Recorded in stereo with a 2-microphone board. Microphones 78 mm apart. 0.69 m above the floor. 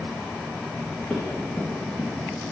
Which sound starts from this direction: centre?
Running footsteps, at 1.1 s.